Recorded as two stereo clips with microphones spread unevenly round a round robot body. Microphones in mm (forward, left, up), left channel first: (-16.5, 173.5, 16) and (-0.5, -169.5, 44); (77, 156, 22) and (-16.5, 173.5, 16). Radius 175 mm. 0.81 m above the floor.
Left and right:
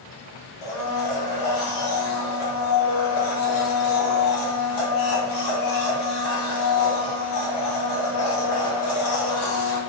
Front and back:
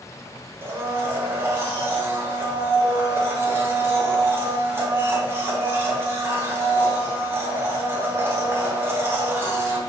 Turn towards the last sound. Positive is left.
turn(degrees=100)